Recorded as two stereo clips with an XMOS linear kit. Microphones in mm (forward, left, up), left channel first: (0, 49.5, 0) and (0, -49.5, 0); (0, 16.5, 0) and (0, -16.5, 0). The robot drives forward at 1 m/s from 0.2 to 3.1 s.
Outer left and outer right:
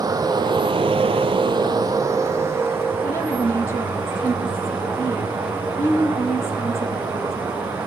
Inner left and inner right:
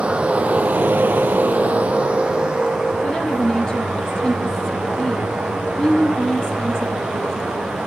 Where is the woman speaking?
25° left (ahead or behind), 3 m.